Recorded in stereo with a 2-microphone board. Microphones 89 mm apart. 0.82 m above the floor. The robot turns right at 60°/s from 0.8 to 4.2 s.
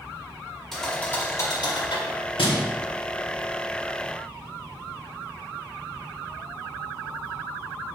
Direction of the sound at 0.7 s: 5° left (ahead or behind).